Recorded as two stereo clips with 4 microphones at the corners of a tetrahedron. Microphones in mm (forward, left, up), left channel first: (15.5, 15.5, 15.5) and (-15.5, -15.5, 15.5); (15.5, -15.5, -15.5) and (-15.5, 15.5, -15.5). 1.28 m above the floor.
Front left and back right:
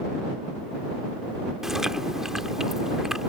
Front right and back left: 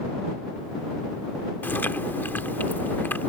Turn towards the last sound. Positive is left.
turn(degrees=-60)